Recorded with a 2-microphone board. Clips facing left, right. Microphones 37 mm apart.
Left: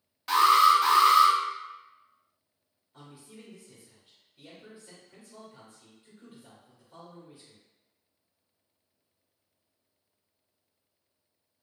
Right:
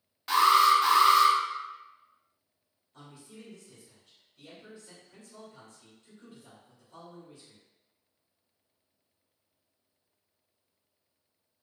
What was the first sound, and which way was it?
An alarm, centre (ahead or behind).